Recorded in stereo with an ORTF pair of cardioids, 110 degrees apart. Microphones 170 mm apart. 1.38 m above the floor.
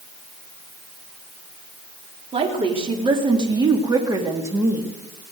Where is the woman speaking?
35° right, 4 m; by 5.0 s 10° right, 3 m.